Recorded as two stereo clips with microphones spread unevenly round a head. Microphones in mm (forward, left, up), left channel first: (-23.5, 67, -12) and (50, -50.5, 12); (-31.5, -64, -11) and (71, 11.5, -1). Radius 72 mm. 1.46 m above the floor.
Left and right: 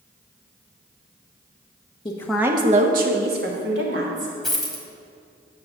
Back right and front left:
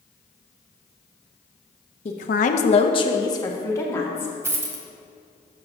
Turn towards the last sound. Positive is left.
turn(degrees=15)